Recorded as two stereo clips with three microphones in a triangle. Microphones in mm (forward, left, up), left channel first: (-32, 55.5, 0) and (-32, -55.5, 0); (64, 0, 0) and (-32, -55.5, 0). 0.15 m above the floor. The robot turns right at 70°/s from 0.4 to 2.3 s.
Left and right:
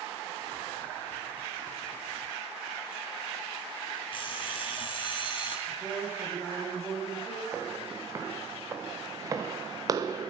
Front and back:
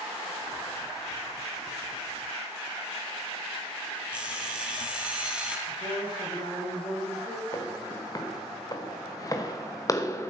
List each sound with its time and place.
4.1 s an alarm clock: 130° left, 2 m
5.7 s a man speaking: 15° right, 5.5 m
7.5 s footsteps: 25° right, 3 m; by 10.3 s 35° right, 1.3 m